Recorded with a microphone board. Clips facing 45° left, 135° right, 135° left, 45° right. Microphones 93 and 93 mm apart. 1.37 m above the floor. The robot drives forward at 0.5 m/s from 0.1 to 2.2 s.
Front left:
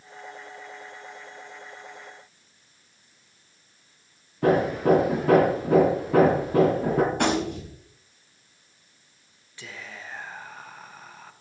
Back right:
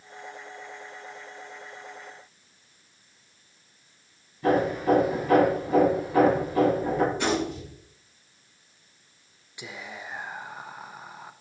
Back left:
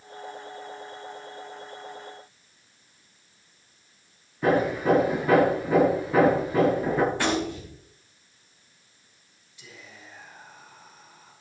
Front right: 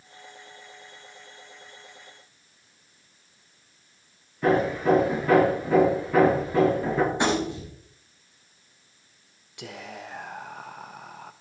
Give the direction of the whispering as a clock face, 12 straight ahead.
2 o'clock.